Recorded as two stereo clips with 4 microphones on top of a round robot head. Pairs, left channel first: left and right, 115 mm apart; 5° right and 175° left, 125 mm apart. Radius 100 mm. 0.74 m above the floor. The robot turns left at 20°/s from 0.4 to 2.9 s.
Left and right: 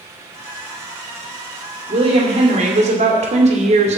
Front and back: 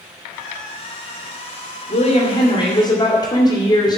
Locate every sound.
1.9 s a woman speaking: 50° right, 2 m; by 4.0 s 70° right, 2 m